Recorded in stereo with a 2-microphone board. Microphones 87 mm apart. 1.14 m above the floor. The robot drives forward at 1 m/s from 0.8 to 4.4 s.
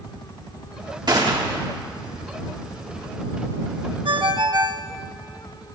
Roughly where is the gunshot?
Right.